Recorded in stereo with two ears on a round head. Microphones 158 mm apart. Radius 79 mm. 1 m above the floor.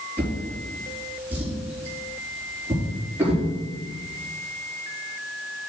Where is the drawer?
10° right (ahead or behind), 4 m.